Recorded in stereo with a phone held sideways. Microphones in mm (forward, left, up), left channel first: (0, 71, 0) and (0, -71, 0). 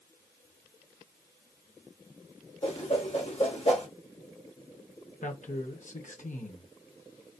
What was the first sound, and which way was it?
A whoosh, 45° left (ahead or behind).